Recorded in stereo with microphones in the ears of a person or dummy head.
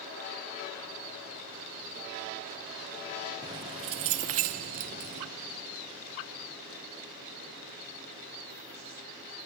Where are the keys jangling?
20° right (ahead or behind); by 5.3 s 50° right (ahead or behind).